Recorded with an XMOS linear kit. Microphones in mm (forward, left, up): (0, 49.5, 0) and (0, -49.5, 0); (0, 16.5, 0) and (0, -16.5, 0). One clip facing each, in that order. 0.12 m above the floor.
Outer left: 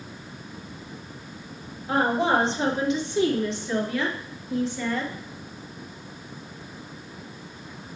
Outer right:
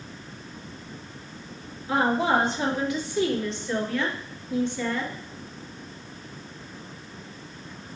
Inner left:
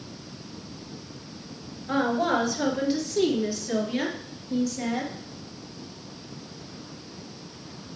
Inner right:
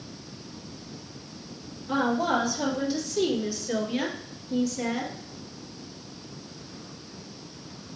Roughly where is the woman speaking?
Left.